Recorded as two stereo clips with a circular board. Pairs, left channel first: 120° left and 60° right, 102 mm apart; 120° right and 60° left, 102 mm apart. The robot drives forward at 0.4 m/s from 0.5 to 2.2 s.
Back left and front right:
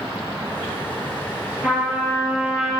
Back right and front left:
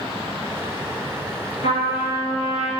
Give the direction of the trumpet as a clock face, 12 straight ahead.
5 o'clock.